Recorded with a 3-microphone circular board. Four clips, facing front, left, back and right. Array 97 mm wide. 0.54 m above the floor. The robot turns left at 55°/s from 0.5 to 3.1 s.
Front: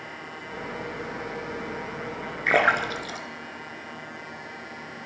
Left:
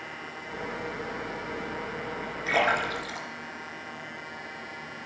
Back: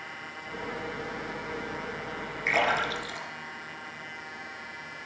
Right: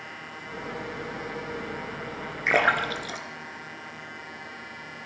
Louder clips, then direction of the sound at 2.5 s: Right 2 dB, front 5 dB; 20° right.